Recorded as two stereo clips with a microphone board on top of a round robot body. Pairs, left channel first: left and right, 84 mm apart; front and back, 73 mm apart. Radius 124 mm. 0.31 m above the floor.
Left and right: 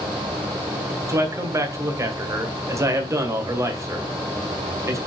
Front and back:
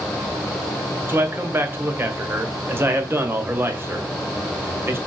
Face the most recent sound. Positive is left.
turn(degrees=-130)